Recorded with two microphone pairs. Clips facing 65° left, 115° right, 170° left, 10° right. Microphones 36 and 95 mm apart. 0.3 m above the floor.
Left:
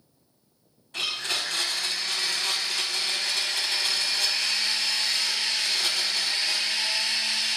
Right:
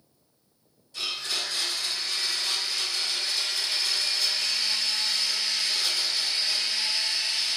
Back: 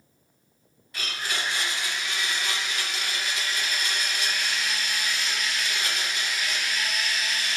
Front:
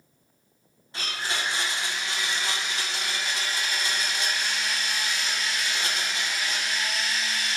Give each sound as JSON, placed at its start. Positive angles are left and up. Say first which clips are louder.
{"t": 0.9, "sound": "a blender", "louder": "left 2 dB, front 1 dB", "azimuth_deg": 50, "distance_m": 0.5}